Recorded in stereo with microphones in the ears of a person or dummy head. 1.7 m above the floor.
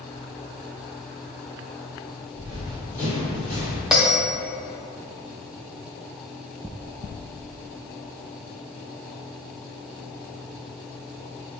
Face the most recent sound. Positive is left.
turn(degrees=0)  # may be behind; listen again after turning